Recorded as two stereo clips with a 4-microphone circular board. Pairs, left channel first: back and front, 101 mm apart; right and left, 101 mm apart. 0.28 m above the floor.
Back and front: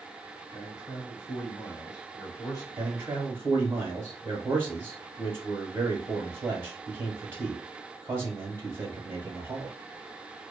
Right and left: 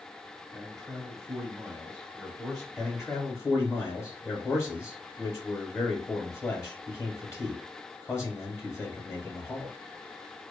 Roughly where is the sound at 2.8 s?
Ahead right.